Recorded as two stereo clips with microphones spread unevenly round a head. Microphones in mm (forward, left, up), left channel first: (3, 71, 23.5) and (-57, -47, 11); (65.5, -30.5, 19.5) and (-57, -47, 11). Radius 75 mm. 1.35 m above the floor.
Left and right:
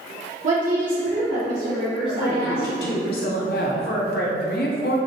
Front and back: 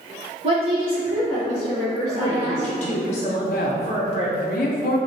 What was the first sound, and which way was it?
A woman speaking, 140° right.